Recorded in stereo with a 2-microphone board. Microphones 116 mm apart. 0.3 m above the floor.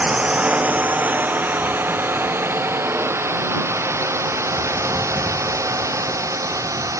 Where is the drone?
10° right (ahead or behind); by 7.0 s 25° right (ahead or behind).